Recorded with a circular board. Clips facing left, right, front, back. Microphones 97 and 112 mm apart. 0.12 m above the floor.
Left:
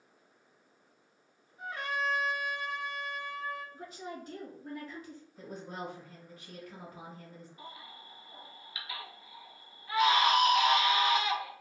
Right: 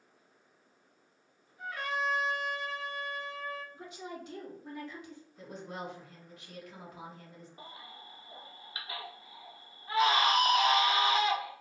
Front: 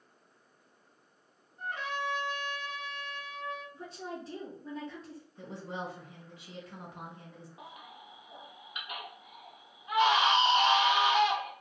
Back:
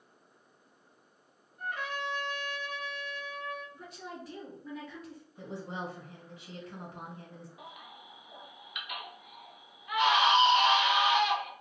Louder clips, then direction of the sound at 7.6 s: Even, even; 45° right.